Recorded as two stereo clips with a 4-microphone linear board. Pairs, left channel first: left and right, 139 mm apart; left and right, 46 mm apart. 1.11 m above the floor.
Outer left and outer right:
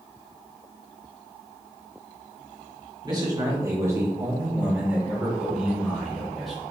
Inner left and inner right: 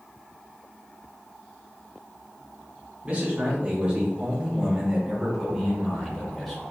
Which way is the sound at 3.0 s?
30° right (ahead or behind).